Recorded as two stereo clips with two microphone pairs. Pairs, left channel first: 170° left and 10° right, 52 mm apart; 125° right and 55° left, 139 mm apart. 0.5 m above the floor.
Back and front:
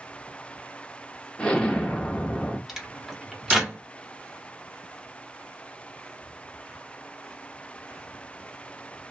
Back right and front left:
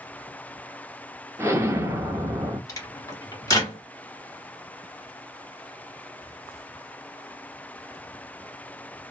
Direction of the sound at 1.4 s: 110° left.